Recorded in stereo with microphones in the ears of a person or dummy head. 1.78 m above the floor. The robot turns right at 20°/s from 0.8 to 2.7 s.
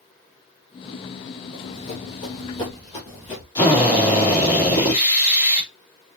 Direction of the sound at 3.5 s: 20° left (ahead or behind).